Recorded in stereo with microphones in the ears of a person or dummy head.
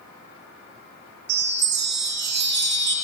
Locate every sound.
1.3 s a chime: 50° right (ahead or behind), 0.6 m